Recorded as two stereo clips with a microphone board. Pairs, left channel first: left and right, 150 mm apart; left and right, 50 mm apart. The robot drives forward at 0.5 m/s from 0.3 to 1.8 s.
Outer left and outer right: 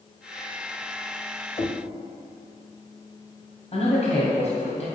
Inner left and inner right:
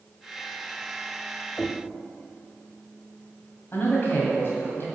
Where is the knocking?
45° left (ahead or behind), 0.6 m; by 1.8 s 40° left (ahead or behind), 0.7 m.